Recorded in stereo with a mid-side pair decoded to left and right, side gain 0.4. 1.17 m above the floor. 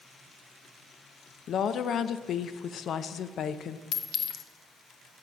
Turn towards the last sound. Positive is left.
turn(degrees=65)